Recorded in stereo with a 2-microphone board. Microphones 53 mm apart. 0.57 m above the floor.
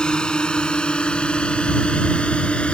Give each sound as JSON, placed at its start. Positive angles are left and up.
{"t": 0.0, "sound": "a drone", "side_deg": 15}